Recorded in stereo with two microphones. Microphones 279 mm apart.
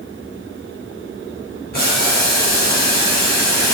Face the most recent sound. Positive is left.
turn(degrees=35)  # may be behind; listen again after turning